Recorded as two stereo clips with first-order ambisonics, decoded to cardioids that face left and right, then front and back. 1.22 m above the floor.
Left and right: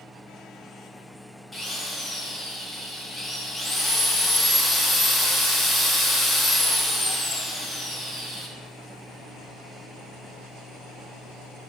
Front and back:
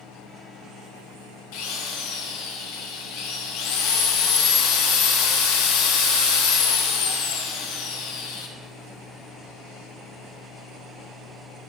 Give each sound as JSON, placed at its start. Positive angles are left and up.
{"t": 1.5, "sound": "a drill", "azimuth_deg": 0, "distance_m": 1.1}